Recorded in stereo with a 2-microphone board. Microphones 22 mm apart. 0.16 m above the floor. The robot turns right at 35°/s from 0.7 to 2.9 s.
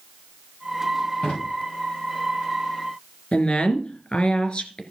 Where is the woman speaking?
45° left (ahead or behind), 2 m.